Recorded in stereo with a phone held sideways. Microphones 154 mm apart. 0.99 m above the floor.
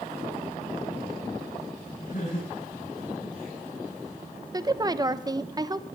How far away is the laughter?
About 10 m.